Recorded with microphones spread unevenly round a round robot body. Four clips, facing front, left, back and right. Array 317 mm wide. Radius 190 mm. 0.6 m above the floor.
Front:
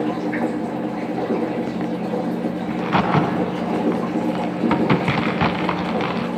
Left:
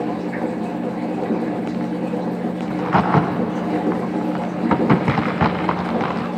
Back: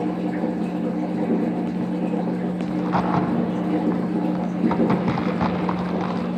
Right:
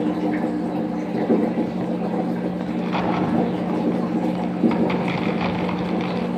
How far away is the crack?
About 1.9 m.